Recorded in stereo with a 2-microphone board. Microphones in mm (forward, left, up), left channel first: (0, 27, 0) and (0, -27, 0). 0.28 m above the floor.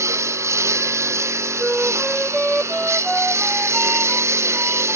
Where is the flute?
Centre (ahead or behind).